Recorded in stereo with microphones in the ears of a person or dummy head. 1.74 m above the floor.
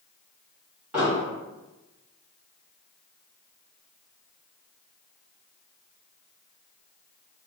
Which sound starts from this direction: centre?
An explosion, at 0.9 s.